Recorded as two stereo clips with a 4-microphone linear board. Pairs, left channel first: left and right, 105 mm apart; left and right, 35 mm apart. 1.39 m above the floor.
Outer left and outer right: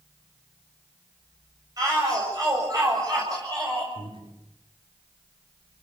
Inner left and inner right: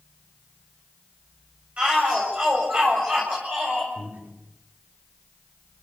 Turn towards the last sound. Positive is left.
turn(degrees=-55)  # may be behind; listen again after turning